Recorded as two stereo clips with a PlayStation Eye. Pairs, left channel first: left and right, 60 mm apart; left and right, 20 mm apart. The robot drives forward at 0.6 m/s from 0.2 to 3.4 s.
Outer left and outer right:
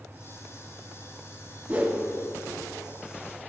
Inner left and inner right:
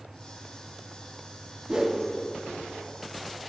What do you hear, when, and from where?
1.7 s a whoosh: 25° right (ahead or behind), 0.8 m